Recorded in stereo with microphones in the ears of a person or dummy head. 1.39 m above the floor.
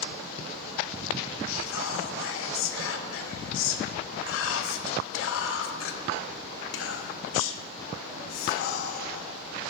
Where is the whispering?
70° left (ahead or behind), 0.6 m.